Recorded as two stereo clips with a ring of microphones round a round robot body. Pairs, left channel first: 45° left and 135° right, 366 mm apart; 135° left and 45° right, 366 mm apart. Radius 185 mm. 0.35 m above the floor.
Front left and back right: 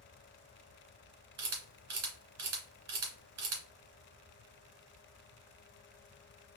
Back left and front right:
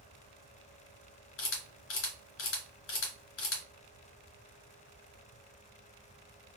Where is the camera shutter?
175° right, 2.0 m.